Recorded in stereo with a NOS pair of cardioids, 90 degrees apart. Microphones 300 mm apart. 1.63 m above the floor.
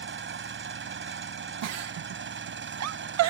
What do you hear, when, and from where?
0.0 s an engine running: 45° right
1.6 s a giggle: 65° right